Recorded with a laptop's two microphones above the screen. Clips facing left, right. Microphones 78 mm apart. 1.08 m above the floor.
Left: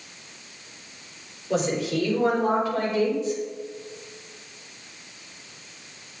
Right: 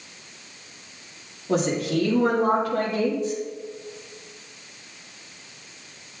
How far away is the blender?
I don't hear a blender.